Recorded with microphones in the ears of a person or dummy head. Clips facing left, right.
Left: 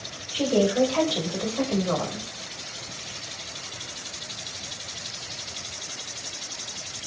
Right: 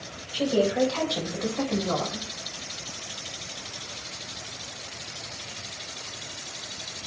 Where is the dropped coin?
No dropped coin in this recording.